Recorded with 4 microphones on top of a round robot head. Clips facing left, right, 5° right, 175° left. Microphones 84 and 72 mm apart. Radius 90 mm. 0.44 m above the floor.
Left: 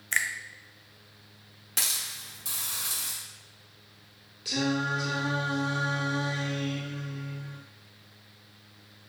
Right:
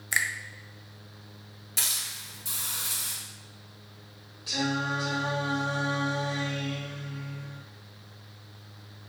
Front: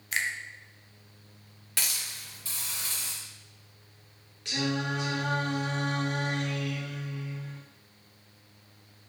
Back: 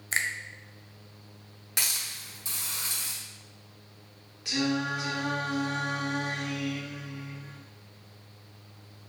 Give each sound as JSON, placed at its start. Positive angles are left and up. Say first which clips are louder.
{"t": 0.1, "sound": "a finger snap", "louder": "right 1 dB, back 1 dB", "azimuth_deg": -165, "distance_m": 0.6}
{"t": 1.8, "sound": "a hiss", "louder": "left 1 dB, back 1 dB", "azimuth_deg": 105, "distance_m": 1.9}
{"t": 4.5, "sound": "singing", "louder": "left 1 dB, back 2 dB", "azimuth_deg": 90, "distance_m": 1.7}